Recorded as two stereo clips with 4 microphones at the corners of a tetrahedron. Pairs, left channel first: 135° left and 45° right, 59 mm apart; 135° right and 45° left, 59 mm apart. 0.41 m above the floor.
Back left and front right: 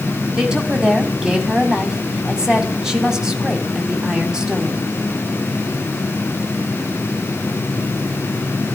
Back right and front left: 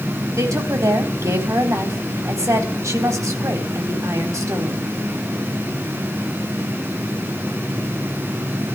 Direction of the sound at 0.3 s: 30° left.